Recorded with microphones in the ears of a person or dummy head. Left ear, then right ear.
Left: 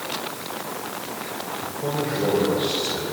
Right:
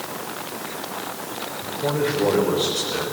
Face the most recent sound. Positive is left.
turn(degrees=-40)  # may be behind; listen again after turning